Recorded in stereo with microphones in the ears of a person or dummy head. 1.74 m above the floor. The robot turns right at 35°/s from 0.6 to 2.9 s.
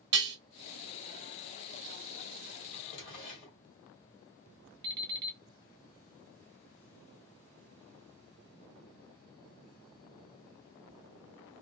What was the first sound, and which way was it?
Dishes clattering, 25° right (ahead or behind).